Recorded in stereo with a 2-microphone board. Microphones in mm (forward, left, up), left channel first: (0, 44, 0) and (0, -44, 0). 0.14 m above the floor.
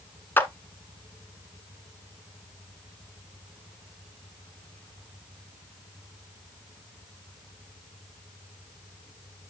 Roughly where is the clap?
Left.